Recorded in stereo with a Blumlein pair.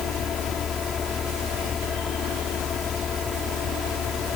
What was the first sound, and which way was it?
A fan, 20° left.